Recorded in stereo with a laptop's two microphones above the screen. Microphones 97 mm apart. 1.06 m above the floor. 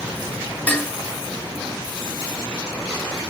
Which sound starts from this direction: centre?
Dishes clattering, at 0.7 s.